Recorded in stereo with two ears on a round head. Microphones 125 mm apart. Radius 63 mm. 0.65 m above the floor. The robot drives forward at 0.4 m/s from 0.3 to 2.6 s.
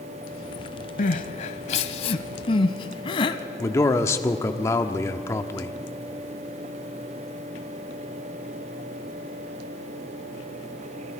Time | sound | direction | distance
1.0 | crying | 65° left (ahead or behind) | 0.9 m
3.6 | a man speaking | 20° left (ahead or behind) | 1.2 m